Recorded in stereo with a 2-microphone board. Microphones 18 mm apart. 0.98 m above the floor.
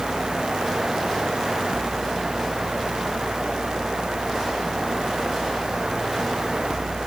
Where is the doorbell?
I don't hear a doorbell.